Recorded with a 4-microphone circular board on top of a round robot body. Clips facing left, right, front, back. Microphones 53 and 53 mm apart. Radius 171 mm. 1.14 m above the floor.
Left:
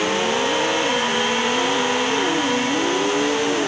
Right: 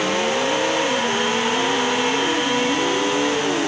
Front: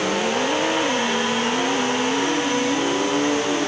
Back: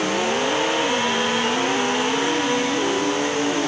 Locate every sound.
Only background noise.